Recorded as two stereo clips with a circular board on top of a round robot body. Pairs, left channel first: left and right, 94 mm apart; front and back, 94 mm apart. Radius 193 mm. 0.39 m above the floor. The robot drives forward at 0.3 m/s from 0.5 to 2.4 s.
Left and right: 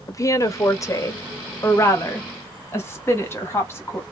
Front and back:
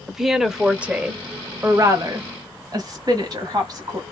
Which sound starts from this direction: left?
A woman speaking, at 0.1 s.